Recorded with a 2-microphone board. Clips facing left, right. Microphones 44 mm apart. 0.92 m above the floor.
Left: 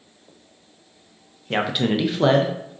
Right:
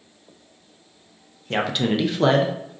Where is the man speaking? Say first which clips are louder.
Left 1 dB; 10° left (ahead or behind), 0.5 m; by 2.8 s centre (ahead or behind), 0.6 m.